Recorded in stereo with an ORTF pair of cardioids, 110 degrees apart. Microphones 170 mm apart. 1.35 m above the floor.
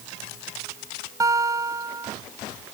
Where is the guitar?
20° right.